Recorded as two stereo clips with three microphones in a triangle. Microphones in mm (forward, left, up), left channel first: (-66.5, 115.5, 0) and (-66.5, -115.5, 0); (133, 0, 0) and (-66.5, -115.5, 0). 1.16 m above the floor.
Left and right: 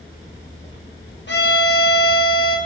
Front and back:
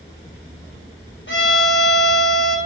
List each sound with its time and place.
1.3 s a violin: 55° left, 1.3 m